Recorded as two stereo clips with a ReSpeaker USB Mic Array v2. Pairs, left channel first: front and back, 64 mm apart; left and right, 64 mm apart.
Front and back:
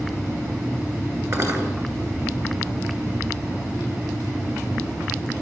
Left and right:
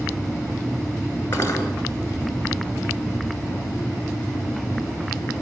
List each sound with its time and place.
1.3 s cutlery clinking: 145° left, 9 m